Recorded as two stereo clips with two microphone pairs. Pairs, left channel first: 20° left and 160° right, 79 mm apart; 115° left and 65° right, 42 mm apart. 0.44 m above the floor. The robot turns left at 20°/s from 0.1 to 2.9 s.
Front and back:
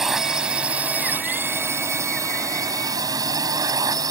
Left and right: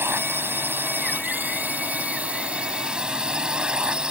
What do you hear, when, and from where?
0.0 s a drone: 75° right; by 4.1 s 130° right